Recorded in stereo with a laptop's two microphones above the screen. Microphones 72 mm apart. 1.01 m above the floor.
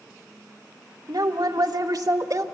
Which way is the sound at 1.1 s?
65° right (ahead or behind).